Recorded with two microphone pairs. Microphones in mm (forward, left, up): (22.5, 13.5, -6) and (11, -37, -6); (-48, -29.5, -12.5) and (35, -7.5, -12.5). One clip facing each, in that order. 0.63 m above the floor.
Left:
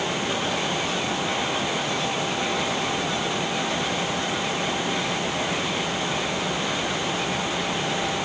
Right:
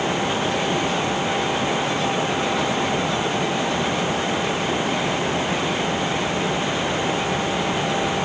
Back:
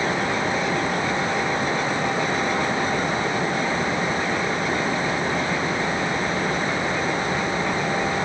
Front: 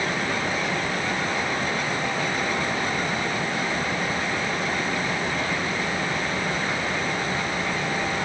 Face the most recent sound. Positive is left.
No sound to turn to.